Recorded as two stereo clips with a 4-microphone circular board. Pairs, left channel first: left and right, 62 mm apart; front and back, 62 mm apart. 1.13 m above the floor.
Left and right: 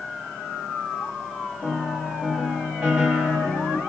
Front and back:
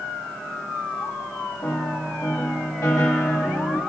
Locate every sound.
1.6 s a piano: 30° right, 1.0 m